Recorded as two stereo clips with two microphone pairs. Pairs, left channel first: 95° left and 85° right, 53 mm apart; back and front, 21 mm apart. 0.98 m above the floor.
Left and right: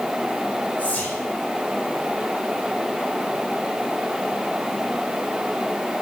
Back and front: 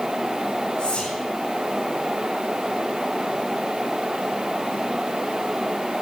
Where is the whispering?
155° left, 2 m.